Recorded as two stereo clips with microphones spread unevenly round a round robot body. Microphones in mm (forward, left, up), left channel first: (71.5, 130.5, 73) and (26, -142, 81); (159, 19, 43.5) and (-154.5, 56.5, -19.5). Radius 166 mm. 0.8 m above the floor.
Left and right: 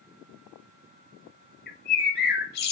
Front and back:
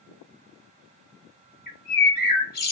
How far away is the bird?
About 0.9 m.